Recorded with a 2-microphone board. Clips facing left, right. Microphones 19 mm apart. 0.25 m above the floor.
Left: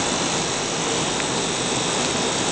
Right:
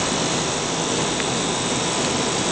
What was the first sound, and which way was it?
Only background noise.